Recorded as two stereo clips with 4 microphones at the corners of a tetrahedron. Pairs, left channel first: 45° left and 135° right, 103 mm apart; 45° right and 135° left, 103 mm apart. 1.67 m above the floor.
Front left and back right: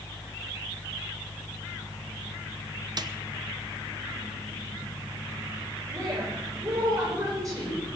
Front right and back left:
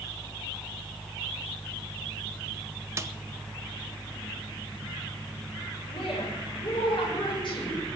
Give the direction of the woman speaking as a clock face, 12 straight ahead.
3 o'clock.